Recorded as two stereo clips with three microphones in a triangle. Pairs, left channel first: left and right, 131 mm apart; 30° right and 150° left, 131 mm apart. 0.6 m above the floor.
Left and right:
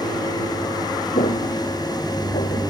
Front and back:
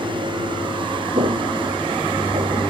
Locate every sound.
1.1 s footsteps: 110° left